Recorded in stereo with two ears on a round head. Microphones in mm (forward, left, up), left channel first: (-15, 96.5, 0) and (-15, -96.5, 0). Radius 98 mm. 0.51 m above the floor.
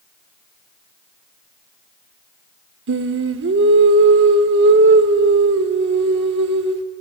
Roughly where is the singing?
Right.